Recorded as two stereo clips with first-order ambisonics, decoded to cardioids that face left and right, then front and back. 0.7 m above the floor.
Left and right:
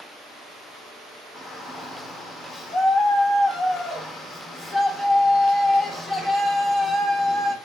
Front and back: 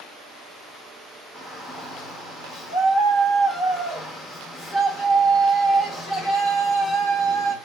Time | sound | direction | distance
1.4 | a shout | 10° left | 0.9 m